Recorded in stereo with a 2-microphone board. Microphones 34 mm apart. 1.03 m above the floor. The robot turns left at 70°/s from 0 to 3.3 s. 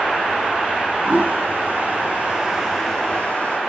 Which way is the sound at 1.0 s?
65° right (ahead or behind).